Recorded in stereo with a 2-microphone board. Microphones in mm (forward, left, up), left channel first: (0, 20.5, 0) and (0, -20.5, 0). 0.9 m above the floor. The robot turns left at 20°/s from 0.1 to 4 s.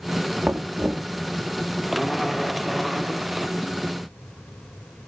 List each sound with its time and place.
0.4 s knocking: 45° right (ahead or behind), 1.2 m; by 1.1 s 30° right (ahead or behind), 1.2 m